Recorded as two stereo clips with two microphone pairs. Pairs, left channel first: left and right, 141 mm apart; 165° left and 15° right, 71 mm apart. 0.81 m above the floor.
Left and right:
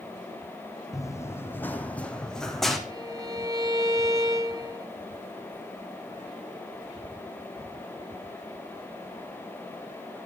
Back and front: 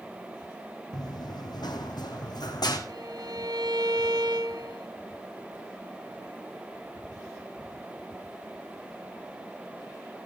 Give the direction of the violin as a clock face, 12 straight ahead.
1 o'clock.